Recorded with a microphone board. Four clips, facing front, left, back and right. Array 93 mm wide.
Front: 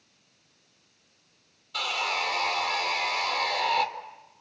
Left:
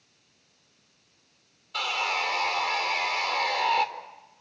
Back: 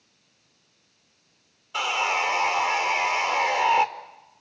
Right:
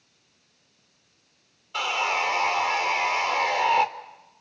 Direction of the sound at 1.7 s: 150° right.